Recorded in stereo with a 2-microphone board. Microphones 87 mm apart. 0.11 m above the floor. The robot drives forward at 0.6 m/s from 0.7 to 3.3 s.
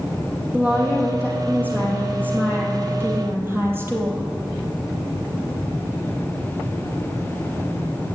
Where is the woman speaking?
20° right (ahead or behind), 4 m; by 4.3 s 30° right (ahead or behind), 3 m.